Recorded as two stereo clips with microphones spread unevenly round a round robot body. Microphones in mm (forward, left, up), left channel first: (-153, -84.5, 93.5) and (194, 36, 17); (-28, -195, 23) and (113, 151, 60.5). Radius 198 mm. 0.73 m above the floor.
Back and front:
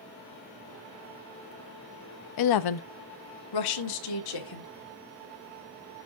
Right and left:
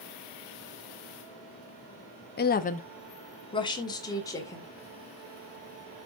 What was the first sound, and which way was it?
A woman speaking, 155° right.